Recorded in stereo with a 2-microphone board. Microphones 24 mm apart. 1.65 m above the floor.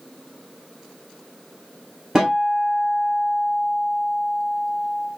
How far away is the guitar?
About 2 m.